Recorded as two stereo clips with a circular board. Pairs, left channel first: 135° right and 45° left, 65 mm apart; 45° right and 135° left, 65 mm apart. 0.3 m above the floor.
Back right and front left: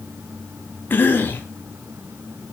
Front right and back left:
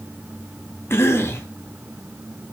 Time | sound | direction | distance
0.9 | a cough | 85° right | 2 m